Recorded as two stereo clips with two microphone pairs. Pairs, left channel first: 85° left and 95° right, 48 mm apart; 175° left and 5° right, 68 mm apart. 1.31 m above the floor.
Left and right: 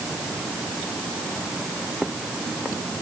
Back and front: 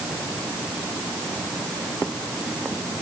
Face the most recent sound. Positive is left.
No sound to turn to.